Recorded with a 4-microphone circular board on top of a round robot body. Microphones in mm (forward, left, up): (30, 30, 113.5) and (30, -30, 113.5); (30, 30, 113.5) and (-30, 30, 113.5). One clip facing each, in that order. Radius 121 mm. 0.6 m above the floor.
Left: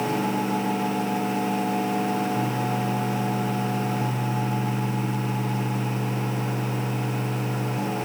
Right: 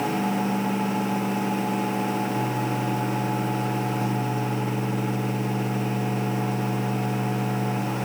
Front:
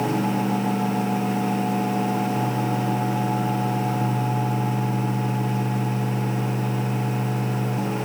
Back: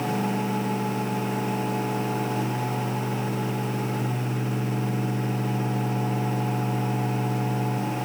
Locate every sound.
Only background noise.